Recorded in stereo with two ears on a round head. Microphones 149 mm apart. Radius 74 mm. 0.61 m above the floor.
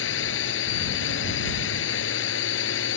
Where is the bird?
No bird in this recording.